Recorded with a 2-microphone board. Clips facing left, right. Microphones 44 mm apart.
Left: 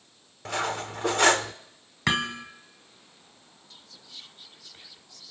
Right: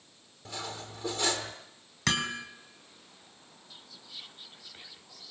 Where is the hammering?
25° left (ahead or behind), 2.5 m.